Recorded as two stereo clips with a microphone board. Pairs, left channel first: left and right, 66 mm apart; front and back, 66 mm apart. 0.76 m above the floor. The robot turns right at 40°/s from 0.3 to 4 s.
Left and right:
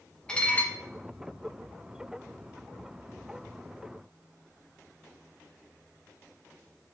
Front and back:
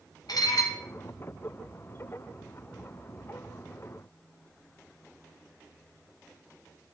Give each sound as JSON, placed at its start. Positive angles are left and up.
{"t": 0.3, "sound": "dishes clattering", "azimuth_deg": 15, "distance_m": 1.2}